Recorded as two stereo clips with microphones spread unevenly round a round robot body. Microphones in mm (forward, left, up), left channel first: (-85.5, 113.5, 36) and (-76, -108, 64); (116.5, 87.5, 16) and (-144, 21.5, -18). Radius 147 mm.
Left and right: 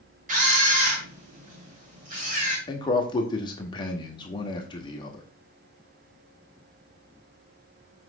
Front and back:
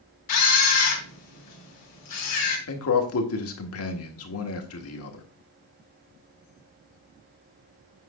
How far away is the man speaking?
About 1.6 m.